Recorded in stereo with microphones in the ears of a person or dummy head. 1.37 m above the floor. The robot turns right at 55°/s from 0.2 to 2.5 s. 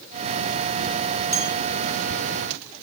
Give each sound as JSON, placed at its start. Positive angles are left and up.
{"t": 1.3, "sound": "a bell", "side_deg": 15, "distance_m": 1.5}